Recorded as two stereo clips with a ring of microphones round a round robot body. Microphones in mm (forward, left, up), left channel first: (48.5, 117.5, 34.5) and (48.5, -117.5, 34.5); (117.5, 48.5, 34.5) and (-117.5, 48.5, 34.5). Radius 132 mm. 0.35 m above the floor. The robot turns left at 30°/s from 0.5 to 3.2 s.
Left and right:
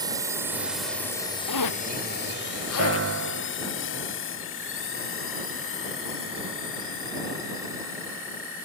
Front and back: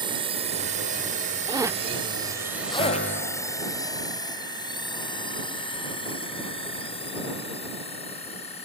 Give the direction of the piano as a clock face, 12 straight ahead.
2 o'clock.